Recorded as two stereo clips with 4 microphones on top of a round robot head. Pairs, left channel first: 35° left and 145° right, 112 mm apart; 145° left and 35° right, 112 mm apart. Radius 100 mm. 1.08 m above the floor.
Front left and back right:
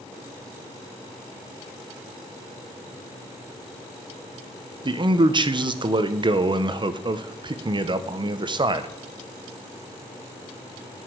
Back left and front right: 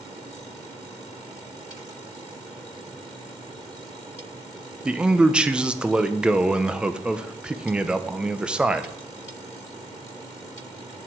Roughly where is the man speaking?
Behind right.